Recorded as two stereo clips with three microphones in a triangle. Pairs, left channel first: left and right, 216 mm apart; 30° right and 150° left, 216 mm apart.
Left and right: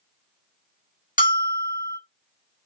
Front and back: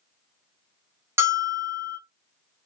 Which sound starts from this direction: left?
A bell, at 1.2 s.